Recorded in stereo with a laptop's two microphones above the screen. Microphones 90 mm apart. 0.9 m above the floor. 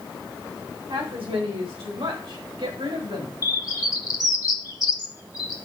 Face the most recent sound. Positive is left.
turn(degrees=40)  # may be behind; listen again after turning